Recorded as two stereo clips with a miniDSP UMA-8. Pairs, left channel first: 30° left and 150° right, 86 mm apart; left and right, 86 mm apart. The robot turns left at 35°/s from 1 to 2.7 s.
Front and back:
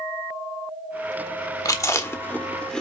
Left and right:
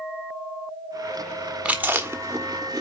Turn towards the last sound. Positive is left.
turn(degrees=-50)